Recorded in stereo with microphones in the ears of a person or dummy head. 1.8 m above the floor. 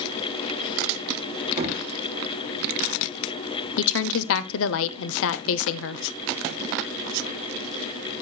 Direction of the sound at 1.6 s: 30° right (ahead or behind).